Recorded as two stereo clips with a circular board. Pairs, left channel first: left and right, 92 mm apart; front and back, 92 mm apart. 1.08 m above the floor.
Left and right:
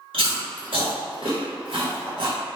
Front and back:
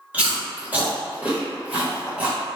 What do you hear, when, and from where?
0.1 s chewing: 105° right, 1.3 m